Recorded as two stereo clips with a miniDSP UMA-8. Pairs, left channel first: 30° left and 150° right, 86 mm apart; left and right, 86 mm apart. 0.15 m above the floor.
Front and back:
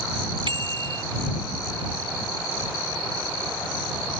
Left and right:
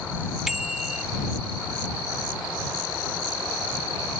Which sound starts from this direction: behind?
A bicycle bell, at 0.5 s.